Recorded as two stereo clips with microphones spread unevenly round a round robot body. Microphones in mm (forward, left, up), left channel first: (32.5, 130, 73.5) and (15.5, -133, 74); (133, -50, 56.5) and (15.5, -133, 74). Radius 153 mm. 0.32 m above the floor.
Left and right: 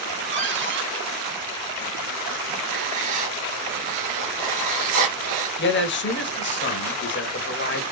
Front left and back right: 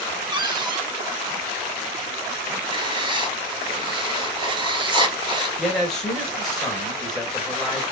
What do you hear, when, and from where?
0.3 s a cupboard door: 90° right, 1.7 m
2.7 s writing: 90° right, 1.9 m
5.6 s a man speaking: 115° left, 1.8 m